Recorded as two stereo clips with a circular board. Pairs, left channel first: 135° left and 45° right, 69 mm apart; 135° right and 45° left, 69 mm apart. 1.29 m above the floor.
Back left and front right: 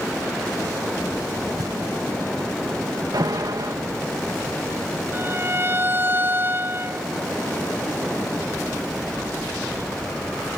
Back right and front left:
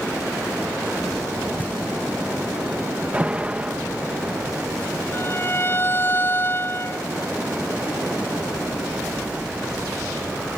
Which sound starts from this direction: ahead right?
An alarm, at 3.1 s.